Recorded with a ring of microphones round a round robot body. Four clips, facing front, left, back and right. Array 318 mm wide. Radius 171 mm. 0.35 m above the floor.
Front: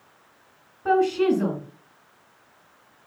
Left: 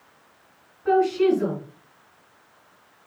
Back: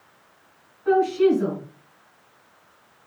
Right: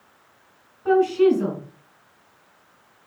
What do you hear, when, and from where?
0.8 s a woman speaking: 10° right, 4 m